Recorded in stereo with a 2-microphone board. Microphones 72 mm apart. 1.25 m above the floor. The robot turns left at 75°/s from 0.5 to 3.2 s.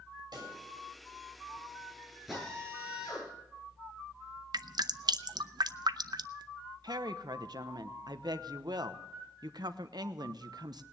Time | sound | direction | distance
0.3 | a pop | 75° right (ahead or behind) | 7 m
2.3 | a drill | 175° right | 9 m
4.5 | dripping | 70° right (ahead or behind) | 0.6 m
6.8 | a woman speaking | 70° right (ahead or behind) | 1.0 m